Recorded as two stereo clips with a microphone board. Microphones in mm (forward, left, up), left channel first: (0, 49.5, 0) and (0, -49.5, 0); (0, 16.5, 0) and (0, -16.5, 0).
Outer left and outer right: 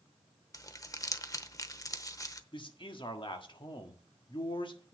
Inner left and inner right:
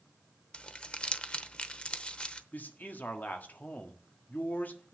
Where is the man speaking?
50° left (ahead or behind), 1.5 m.